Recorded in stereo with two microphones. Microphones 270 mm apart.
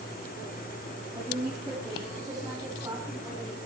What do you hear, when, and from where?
1.1 s a woman speaking: 15° right (ahead or behind), 7.5 m